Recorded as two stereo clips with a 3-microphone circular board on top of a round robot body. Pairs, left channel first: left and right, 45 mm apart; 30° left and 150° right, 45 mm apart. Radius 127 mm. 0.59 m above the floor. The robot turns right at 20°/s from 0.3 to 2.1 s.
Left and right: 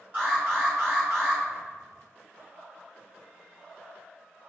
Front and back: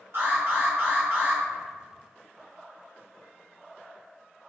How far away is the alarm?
About 2.0 m.